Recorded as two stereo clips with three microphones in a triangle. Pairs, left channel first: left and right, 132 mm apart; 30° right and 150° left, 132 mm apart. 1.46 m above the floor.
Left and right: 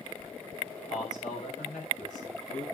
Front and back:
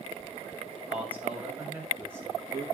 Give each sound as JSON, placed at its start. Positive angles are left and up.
{"t": 0.9, "sound": "a man speaking", "azimuth_deg": 70, "distance_m": 7.0}